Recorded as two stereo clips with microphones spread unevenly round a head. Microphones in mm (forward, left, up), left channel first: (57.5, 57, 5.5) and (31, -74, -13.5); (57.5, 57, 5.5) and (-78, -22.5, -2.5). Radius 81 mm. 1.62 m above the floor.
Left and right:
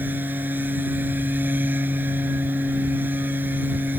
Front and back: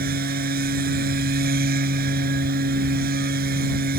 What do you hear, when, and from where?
0.0 s a machine running: 175° left